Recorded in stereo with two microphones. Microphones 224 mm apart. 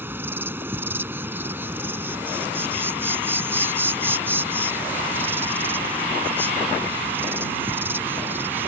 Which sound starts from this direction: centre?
An insect, at 0.0 s.